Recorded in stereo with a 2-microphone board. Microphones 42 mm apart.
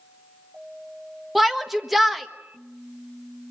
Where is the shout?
5° right (ahead or behind), 1.4 m.